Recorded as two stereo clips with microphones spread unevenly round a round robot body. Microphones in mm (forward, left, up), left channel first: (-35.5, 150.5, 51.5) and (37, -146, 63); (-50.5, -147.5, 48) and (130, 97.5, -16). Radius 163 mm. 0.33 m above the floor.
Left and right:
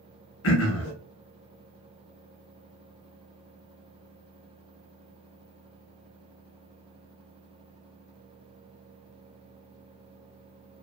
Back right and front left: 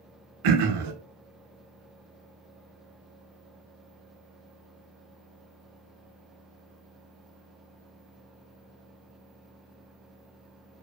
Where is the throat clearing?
55° left, 0.6 m.